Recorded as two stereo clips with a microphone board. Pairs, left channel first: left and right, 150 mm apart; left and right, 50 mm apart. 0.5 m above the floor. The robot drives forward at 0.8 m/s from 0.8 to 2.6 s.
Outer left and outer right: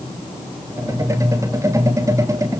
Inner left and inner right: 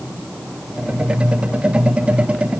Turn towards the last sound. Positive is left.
No sound to turn to.